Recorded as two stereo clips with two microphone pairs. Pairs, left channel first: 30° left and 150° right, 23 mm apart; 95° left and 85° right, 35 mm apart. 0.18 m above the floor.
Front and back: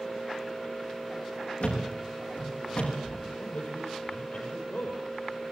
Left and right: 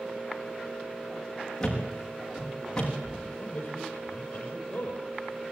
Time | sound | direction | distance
1.6 | a thud | 15° left | 8 m
3.4 | a man speaking | 40° left | 5.5 m